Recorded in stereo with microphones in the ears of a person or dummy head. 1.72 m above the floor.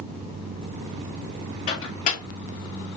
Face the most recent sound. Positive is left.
turn(degrees=35)  # may be behind; listen again after turning